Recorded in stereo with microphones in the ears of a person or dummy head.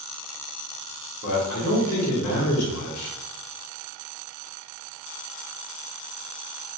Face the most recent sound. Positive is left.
turn(degrees=45)  # may be behind; listen again after turning